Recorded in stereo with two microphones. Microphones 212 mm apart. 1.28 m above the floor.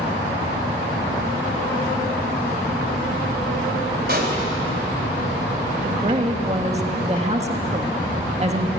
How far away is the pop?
About 4 m.